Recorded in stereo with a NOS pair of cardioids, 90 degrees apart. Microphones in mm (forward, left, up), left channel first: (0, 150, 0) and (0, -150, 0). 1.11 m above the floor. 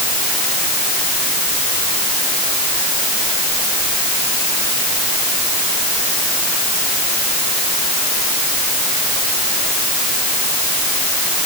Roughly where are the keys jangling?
No keys jangling in this recording.